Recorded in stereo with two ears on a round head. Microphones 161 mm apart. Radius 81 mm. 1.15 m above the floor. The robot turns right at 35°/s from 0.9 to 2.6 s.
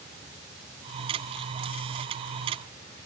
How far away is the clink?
No clink in this recording.